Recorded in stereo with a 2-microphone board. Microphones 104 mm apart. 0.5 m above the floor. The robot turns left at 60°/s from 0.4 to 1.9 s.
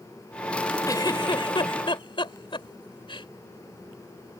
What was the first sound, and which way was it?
A giggle, 35° left (ahead or behind).